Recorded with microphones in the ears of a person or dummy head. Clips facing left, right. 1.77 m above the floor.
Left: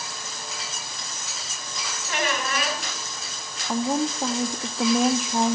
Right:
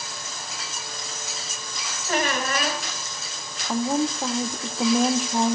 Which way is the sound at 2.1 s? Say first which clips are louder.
Right 3 dB; 40° right (ahead or behind).